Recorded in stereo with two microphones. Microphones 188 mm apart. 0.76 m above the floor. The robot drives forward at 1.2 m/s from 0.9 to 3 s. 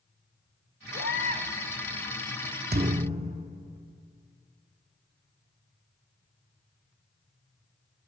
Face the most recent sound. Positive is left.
turn(degrees=-35)  # may be behind; listen again after turning